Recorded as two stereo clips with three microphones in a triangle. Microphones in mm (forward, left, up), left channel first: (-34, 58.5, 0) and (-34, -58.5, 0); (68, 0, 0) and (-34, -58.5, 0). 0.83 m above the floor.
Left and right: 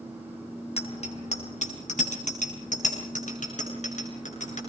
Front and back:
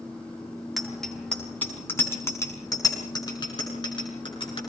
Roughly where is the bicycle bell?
Behind left.